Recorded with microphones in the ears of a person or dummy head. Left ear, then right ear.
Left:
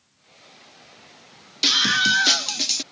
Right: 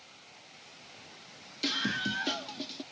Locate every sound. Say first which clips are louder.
1.6 s a scream: left 14 dB; 40° left (ahead or behind); by 2.8 s 70° left (ahead or behind)